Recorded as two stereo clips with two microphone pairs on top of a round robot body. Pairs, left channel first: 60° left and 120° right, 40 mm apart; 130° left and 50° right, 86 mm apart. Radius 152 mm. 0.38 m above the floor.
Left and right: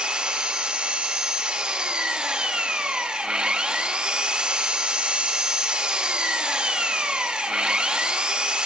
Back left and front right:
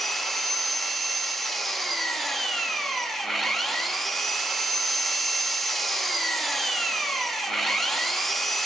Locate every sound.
0.0 s an engine running: 140° right, 0.8 m